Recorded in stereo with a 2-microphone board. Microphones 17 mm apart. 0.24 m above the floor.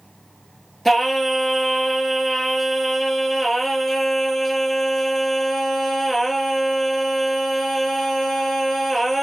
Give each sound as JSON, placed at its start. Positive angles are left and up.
{"t": 0.8, "sound": "singing", "side_deg": 15, "distance_m": 0.9}